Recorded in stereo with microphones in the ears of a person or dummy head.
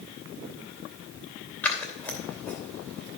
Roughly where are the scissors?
Centre.